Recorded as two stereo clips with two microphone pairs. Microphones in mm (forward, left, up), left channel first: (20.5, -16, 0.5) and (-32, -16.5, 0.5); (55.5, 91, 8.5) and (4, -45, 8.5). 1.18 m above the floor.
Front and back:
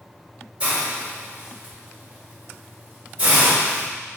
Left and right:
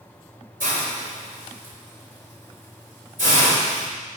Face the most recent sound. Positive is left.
turn(degrees=-110)